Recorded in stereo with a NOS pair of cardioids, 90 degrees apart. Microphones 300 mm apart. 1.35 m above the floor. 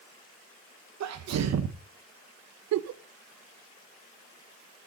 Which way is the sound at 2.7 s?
65° right.